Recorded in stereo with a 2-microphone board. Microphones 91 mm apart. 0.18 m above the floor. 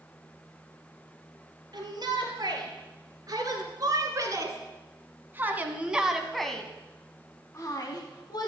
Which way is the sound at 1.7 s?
50° right (ahead or behind).